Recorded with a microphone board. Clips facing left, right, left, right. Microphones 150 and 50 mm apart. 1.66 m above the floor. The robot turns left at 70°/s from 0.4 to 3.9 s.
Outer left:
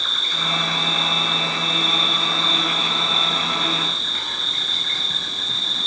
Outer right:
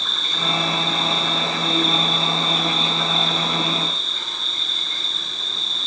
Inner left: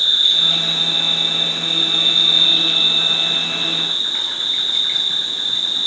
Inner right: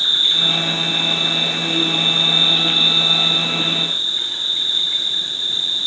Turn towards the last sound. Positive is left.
turn(degrees=95)